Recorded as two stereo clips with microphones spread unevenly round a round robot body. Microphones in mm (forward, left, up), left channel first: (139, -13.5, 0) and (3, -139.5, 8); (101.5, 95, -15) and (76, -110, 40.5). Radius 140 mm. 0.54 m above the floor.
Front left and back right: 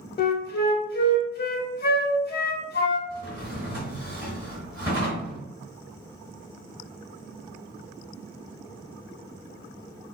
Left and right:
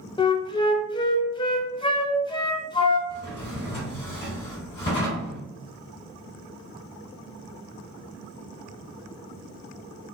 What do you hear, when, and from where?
0.2 s a flute: 10° left, 0.6 m
3.1 s a drawer: 145° left, 1.1 m